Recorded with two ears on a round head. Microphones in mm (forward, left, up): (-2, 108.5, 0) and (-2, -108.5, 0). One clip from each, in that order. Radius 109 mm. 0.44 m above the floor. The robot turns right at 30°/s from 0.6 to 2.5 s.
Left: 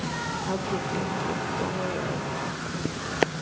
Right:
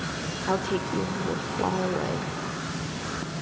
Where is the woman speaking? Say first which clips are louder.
Right 6 dB; 115° right, 1.3 m; by 2.3 s 65° right, 1.3 m.